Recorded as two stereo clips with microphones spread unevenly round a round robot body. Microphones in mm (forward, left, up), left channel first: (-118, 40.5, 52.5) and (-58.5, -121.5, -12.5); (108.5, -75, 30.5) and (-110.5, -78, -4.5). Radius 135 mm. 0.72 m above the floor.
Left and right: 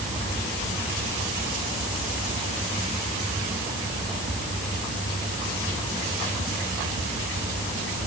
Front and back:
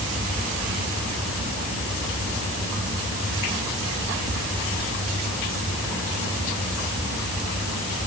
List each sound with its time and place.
Only background noise.